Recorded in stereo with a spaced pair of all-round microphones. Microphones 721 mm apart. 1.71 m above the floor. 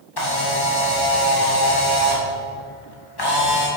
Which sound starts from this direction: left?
A camera shutter, at 0.2 s.